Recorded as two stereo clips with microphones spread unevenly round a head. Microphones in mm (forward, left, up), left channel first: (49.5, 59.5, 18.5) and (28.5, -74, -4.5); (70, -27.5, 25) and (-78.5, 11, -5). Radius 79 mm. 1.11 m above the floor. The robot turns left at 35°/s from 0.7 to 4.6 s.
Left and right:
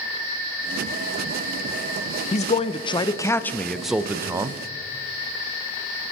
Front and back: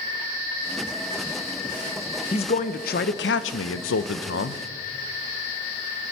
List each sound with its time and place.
2.3 s a man speaking: 45° left, 0.5 m; by 4.6 s 40° right, 0.5 m